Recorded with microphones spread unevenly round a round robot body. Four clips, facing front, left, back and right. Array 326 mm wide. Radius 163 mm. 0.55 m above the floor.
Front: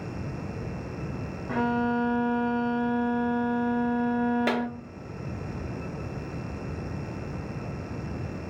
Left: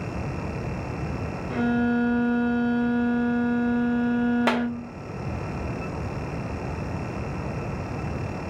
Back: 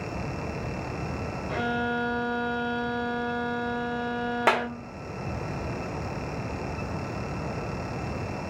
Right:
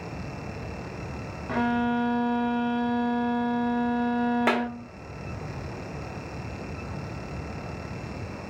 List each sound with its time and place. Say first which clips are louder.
1.5 s a violin: left 2 dB, front 3 dB; 65° right, 0.7 m
4.5 s a clap: left 1 dB, back 3 dB; 160° right, 0.6 m